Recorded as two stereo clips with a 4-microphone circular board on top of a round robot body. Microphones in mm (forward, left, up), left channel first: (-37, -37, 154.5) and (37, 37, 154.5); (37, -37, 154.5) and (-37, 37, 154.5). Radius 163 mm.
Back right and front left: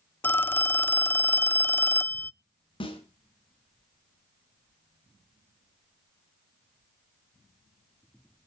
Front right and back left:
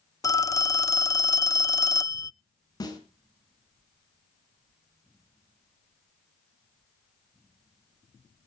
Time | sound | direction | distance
0.2 | a phone ringing | 75° right | 0.6 m
2.8 | a snare drum | 95° right | 4 m